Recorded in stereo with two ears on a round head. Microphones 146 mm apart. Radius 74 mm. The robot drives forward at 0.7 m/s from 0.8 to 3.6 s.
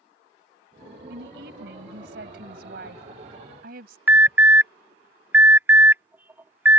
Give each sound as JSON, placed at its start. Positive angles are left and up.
{"t": 1.1, "sound": "a woman speaking", "side_deg": -75}
{"t": 4.1, "sound": "an alarm", "side_deg": -15}